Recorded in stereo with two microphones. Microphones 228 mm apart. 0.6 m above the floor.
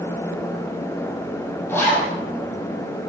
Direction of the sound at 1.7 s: 10° left (ahead or behind).